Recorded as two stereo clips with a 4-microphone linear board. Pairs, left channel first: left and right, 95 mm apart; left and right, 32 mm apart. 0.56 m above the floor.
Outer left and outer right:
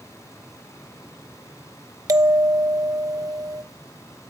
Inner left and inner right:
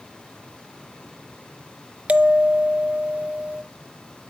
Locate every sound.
2.1 s a bell: 40° right (ahead or behind), 0.5 m